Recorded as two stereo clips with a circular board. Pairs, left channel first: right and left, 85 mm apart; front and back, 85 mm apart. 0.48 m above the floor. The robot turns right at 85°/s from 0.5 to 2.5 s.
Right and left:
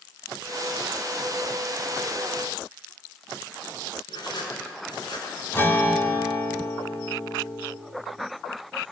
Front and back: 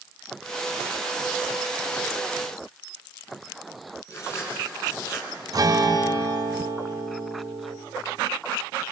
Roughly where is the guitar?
Behind right.